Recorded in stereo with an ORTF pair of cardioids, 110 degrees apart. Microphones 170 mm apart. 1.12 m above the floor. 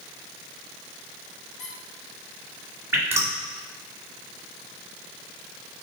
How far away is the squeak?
About 1.5 m.